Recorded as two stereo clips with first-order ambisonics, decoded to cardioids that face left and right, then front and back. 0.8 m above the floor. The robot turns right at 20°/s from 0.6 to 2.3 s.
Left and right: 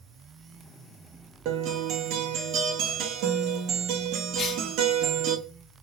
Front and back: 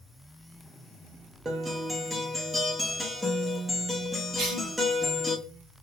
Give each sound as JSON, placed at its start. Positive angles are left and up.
{"t": 1.4, "sound": "a guitar", "azimuth_deg": -110, "distance_m": 0.8}
{"t": 4.4, "sound": "a cough", "azimuth_deg": 150, "distance_m": 0.7}